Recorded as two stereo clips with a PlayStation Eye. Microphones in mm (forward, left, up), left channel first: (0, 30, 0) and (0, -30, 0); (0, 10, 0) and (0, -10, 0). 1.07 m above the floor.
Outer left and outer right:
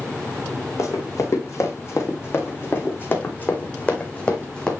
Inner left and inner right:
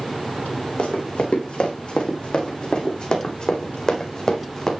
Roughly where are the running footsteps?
Left.